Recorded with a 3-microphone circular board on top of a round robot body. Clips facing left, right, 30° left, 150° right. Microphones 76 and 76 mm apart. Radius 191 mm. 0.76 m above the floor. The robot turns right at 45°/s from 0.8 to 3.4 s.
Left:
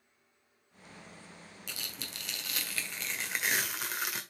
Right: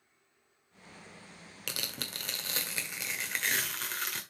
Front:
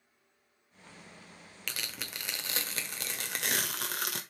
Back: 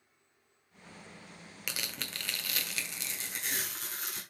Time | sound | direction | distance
1.7 | tearing paper | 70° right | 1.4 m